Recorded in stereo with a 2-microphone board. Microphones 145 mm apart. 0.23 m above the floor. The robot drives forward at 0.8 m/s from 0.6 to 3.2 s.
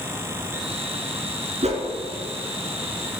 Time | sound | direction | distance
1.6 | a whoosh | 50° right (ahead or behind) | 0.9 m